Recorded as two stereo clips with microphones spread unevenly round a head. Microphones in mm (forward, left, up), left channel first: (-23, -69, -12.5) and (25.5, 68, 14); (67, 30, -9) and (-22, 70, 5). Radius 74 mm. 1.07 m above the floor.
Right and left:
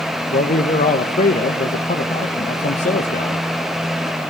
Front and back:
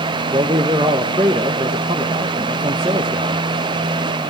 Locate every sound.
0.3 s a man speaking: 140° right, 1.0 m